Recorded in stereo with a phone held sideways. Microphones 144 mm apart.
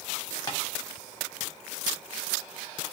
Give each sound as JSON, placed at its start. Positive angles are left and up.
{"t": 0.5, "sound": "tapping", "side_deg": 25, "distance_m": 0.9}